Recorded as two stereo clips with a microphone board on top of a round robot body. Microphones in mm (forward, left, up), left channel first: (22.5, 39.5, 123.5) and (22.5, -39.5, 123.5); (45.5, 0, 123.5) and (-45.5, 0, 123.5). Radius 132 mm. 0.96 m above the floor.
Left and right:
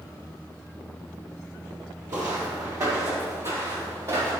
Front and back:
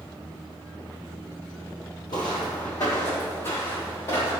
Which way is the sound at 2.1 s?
45° right.